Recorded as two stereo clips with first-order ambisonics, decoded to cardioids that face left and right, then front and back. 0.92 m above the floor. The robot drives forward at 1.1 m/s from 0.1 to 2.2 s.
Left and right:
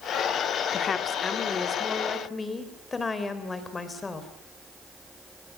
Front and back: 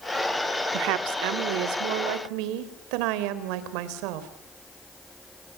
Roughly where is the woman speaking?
Behind left.